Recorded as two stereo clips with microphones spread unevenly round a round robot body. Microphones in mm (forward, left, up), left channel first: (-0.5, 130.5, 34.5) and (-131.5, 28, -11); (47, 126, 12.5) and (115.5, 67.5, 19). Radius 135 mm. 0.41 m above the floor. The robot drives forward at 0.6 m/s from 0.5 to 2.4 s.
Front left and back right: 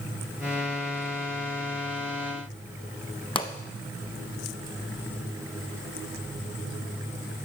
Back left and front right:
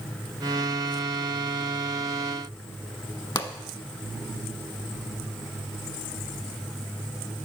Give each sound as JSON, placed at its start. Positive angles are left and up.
{"t": 3.4, "sound": "a pop", "azimuth_deg": 100, "distance_m": 1.1}